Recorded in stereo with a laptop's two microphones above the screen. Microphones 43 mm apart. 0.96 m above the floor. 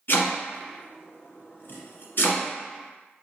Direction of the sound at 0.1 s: 50° left (ahead or behind).